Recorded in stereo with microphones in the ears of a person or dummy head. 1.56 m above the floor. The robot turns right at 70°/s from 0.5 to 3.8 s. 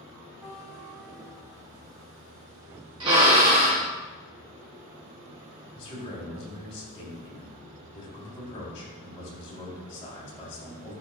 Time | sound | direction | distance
0.4 | a guitar | 175° right | 2.5 m
3.0 | a drill | 150° right | 1.4 m
5.8 | a man speaking | 30° left (ahead or behind) | 3 m